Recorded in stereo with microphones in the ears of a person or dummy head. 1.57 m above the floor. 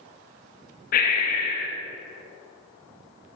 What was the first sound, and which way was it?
Breathing, 45° left (ahead or behind).